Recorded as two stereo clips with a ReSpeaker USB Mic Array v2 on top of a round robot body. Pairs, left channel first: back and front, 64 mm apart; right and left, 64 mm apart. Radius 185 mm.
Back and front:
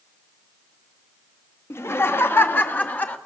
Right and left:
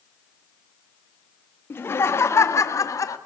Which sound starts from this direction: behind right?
Laughter, at 1.7 s.